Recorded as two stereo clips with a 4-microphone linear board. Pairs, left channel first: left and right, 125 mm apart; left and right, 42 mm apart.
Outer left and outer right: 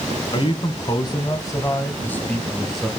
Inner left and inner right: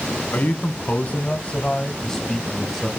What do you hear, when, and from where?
0.3 s a man speaking: 40° left (ahead or behind), 1.3 m; by 2.9 s 5° right (ahead or behind), 1.1 m